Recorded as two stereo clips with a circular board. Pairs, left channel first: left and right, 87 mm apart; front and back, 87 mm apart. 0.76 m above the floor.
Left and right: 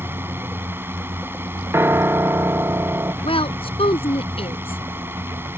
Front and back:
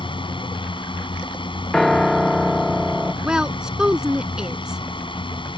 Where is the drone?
25° right.